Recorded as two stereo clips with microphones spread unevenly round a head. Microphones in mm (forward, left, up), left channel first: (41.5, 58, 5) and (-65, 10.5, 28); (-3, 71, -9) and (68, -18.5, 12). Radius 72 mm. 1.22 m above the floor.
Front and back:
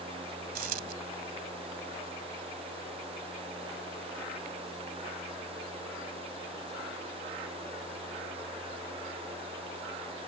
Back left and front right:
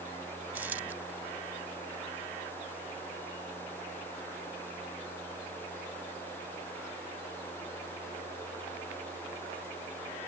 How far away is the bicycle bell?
No bicycle bell in this recording.